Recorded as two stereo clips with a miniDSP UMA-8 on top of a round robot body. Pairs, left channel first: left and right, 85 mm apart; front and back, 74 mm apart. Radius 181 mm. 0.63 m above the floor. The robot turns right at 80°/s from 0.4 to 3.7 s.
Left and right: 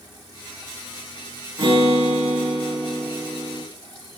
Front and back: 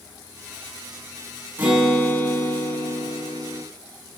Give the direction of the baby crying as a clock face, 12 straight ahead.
I don't hear a baby crying.